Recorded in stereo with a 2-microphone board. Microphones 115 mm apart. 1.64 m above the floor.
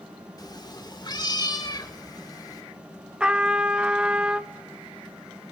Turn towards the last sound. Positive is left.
turn(degrees=-10)  # may be behind; listen again after turning